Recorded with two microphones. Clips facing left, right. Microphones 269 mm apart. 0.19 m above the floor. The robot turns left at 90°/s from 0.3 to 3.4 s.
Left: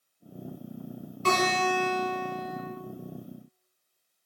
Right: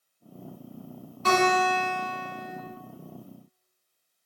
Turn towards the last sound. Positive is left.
turn(degrees=-120)